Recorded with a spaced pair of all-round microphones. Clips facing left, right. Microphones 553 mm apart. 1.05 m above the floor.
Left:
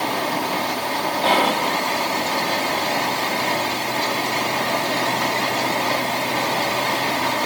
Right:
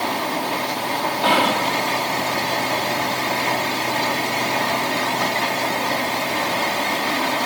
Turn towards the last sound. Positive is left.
turn(degrees=-40)  # may be behind; listen again after turning